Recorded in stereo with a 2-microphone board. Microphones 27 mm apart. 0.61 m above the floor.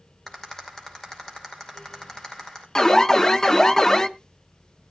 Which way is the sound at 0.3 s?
25° left (ahead or behind).